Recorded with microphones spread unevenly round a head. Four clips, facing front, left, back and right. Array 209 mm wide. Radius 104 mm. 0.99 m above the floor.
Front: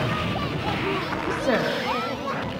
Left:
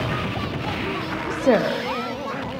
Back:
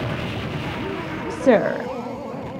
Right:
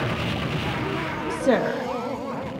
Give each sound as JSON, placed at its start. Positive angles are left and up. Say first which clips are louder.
{"t": 1.3, "sound": "a woman speaking", "louder": "left 3 dB, back 8 dB", "azimuth_deg": 160, "distance_m": 0.5}